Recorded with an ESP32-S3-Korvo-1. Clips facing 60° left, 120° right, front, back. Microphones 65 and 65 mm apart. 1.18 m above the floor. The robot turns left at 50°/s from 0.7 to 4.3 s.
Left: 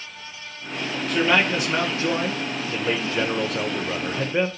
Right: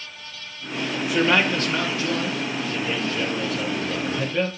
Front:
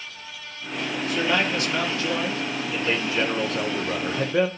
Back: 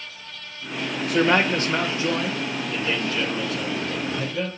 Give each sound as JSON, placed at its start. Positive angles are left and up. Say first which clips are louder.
{"t": 1.1, "sound": "a man speaking", "louder": "even, back 5 dB", "azimuth_deg": 160, "distance_m": 1.2}